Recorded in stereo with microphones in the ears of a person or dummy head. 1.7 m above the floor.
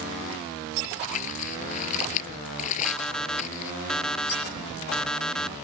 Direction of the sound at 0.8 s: 45° left (ahead or behind).